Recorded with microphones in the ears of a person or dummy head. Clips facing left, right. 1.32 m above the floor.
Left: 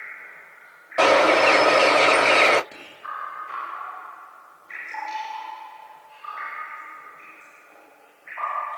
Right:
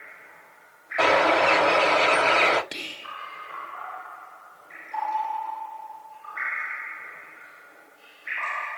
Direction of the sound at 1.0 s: 75° left (ahead or behind).